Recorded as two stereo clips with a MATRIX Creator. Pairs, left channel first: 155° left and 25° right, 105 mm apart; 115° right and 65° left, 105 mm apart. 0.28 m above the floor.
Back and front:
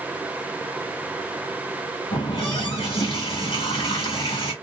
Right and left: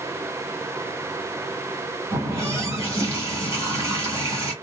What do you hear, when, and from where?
2.1 s a running tap: 125° left, 1.7 m